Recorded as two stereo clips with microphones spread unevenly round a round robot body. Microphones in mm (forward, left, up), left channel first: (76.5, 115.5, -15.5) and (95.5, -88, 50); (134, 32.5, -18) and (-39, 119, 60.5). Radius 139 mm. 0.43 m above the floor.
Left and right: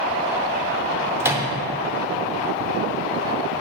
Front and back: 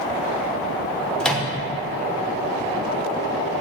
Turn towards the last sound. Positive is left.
turn(degrees=15)